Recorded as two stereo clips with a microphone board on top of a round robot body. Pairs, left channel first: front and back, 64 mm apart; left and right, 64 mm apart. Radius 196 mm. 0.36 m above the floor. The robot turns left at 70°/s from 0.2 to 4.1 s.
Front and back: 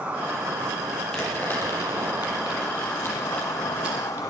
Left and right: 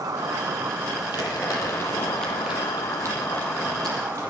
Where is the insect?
115° right, 4 m; by 4.3 s 25° right, 4 m.